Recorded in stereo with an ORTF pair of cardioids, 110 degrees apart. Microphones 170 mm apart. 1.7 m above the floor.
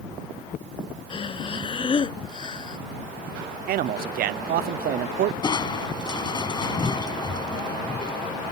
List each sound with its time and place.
1.1 s breathing: 30° left
3.7 s a man speaking: 60° right
5.4 s crushing: 25° left